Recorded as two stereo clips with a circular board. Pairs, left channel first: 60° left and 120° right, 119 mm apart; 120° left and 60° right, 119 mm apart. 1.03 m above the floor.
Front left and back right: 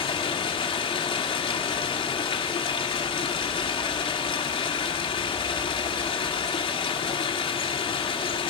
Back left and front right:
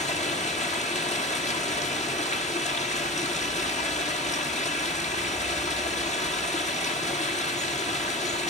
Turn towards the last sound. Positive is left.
turn(degrees=105)